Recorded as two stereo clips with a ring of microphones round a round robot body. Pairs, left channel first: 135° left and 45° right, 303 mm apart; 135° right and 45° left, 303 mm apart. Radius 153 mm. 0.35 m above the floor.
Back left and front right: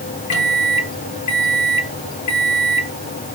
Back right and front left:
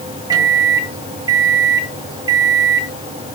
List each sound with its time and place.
0.3 s a microwave: 120° left, 2 m